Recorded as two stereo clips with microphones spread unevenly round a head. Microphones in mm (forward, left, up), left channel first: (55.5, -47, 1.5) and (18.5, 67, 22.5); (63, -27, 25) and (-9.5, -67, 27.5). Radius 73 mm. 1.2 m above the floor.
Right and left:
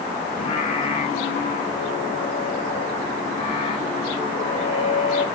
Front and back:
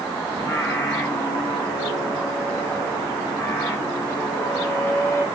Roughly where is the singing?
Ahead right.